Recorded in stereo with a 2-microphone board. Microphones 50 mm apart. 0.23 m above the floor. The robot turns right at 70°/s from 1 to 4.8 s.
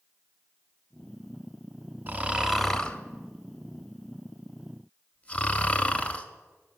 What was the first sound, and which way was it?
Snoring, 35° right (ahead or behind).